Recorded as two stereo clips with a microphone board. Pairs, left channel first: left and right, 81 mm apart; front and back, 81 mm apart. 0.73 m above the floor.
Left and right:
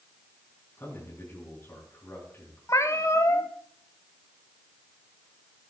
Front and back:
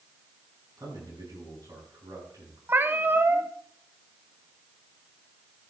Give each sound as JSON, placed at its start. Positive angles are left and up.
{"t": 0.8, "sound": "a man speaking", "azimuth_deg": 150, "distance_m": 6.0}
{"t": 2.7, "sound": "a cat meowing", "azimuth_deg": 125, "distance_m": 0.8}